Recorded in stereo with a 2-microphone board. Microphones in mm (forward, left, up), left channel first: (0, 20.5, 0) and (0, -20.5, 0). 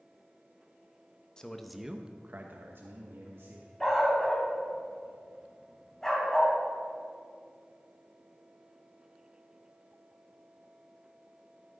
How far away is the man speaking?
About 0.9 m.